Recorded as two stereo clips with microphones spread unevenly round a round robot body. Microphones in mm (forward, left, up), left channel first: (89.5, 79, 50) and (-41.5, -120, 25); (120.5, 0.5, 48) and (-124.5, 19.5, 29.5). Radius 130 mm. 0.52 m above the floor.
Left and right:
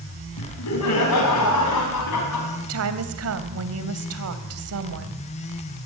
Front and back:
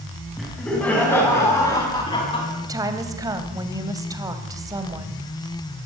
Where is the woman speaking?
110° right, 2.5 m.